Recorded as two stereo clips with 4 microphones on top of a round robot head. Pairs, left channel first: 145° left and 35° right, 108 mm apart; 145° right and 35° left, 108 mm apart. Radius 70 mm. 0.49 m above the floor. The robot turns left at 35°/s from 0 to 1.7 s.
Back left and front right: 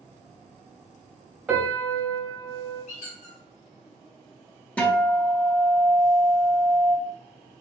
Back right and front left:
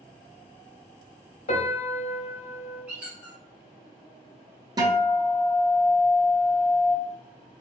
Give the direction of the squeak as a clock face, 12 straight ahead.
8 o'clock.